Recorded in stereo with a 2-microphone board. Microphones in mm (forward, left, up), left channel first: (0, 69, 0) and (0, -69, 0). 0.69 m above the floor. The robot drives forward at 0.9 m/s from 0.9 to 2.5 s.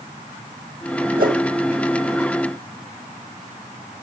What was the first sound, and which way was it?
A whoosh, 75° right (ahead or behind).